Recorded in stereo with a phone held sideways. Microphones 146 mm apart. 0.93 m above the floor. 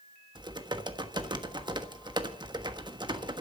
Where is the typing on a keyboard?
30° right (ahead or behind), 1.2 m.